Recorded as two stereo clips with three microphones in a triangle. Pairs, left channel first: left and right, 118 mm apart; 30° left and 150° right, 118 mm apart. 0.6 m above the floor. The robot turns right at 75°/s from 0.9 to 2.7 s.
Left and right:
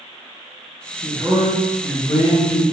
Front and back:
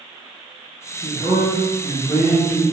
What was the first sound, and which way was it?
A man speaking, 5° right.